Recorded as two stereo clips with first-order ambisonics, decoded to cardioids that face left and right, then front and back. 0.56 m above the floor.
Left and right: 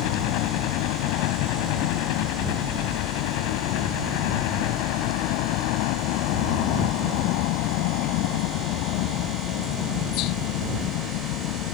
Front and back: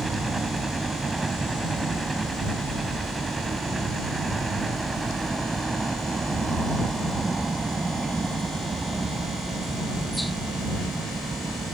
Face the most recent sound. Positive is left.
turn(degrees=100)